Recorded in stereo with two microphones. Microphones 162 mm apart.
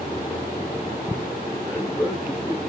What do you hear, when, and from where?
1.6 s a man speaking: 10° right (ahead or behind), 6.5 m